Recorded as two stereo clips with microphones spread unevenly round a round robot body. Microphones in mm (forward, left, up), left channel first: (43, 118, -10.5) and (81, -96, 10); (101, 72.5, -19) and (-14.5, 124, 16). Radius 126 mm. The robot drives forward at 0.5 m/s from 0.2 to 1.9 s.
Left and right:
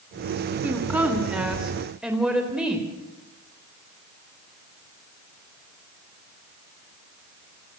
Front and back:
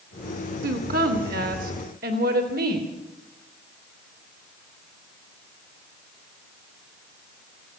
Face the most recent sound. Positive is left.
turn(degrees=-165)